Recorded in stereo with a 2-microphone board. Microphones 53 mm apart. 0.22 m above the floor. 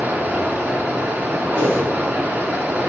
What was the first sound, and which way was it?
Running water, 30° right (ahead or behind).